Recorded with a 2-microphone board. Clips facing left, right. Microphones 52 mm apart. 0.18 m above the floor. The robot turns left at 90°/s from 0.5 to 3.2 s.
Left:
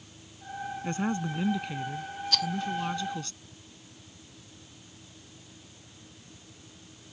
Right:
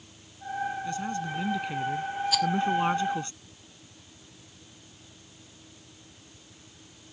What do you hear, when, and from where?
0.8 s a woman speaking: 65° left; by 3.3 s 145° right
2.3 s a rattle: 10° right (ahead or behind); by 2.5 s 5° left (ahead or behind)